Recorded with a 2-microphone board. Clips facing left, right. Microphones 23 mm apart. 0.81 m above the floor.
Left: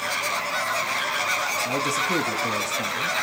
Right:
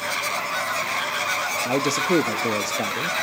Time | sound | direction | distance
1.6 | a man speaking | 55° right (ahead or behind) | 1.0 m